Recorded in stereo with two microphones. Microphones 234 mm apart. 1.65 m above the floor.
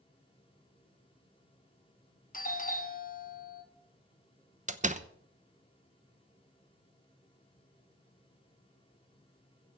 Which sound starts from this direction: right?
A door slam, at 4.7 s.